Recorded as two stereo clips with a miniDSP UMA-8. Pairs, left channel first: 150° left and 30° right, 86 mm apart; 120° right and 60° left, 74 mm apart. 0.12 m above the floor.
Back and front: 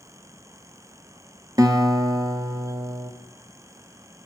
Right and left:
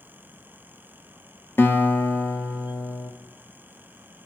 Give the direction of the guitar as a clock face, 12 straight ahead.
2 o'clock.